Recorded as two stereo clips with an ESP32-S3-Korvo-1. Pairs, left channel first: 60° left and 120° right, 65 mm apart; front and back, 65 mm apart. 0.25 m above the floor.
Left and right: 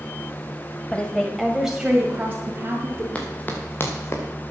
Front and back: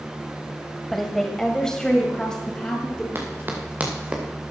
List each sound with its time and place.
0.9 s a woman speaking: 85° left, 1.5 m; by 3.0 s 75° right, 2.5 m
3.1 s running footsteps: 130° left, 3.5 m; by 4.2 s 105° left, 3 m